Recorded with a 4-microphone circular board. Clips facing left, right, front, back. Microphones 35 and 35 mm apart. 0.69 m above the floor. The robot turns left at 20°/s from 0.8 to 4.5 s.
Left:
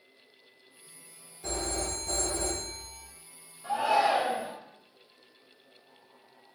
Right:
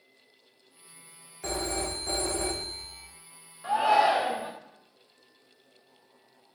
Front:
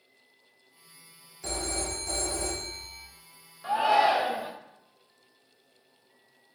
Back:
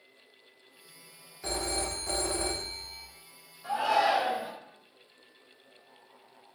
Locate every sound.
1.4 s a phone ringing: 105° right, 0.6 m; by 3.0 s 140° right, 0.6 m
3.6 s a shout: 45° right, 0.7 m; by 4.5 s 60° right, 0.7 m